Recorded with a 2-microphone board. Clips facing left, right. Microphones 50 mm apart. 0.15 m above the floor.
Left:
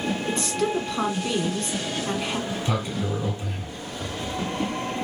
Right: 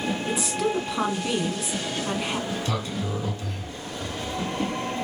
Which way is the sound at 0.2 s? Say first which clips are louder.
Even; 5° right (ahead or behind).